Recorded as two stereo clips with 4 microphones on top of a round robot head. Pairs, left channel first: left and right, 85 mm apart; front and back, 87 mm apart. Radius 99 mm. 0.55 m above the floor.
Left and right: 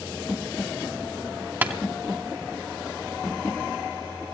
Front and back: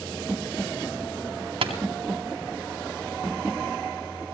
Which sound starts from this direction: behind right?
Tapping, at 1.6 s.